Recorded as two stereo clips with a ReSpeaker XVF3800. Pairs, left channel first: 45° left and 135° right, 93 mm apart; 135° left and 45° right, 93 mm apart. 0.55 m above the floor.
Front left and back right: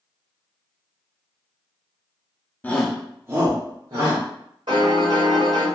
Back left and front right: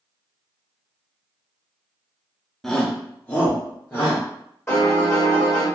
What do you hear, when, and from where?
2.6 s a shout: 50° left, 0.6 m; by 4.2 s 160° right, 1.3 m
4.7 s a piano: 160° right, 1.8 m